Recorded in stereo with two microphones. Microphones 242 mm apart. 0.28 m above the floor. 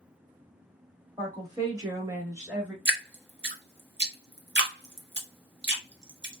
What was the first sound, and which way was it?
A woman speaking, 15° right (ahead or behind).